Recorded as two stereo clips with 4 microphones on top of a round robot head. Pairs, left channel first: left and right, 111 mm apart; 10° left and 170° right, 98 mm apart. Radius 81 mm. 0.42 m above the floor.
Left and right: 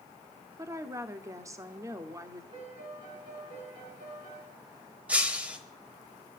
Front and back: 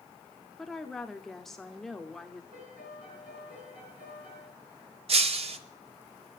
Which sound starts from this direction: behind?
Breaking glass, at 5.1 s.